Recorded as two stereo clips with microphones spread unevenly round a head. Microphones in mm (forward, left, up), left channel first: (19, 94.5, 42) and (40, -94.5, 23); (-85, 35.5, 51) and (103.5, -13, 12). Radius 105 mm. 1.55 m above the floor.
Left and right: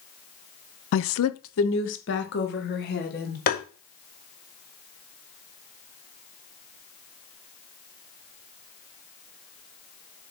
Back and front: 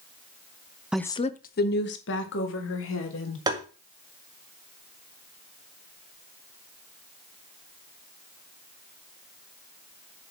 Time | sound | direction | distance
0.9 | a woman speaking | 70° left | 0.5 m
3.5 | tapping | 60° left | 1.9 m